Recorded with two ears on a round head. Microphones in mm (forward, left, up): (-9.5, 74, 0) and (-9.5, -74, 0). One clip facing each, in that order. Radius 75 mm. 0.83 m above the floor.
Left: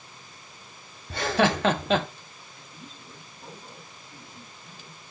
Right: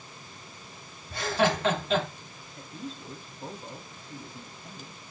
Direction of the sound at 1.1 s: 55° left (ahead or behind).